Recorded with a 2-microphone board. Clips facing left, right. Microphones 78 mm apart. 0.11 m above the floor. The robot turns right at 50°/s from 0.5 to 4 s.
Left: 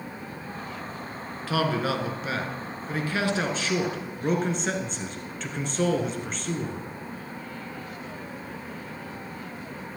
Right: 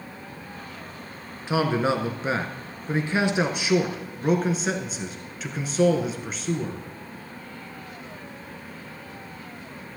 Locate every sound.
1.5 s a man speaking: 20° right (ahead or behind), 1.2 m; by 6.8 s 5° right (ahead or behind), 1.2 m